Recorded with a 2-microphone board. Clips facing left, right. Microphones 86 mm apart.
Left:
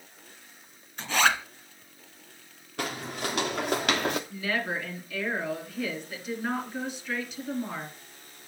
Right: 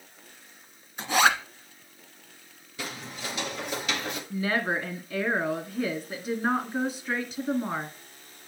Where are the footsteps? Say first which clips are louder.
Left 5 dB; 60° left (ahead or behind), 1.8 m; by 4.2 s 65° left (ahead or behind), 1.1 m.